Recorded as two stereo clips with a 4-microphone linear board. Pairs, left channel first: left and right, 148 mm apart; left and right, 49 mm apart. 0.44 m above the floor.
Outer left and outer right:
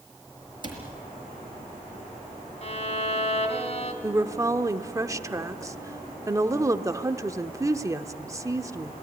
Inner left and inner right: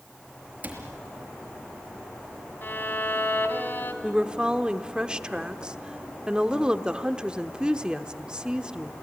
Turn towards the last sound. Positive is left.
turn(degrees=-20)  # may be behind; listen again after turning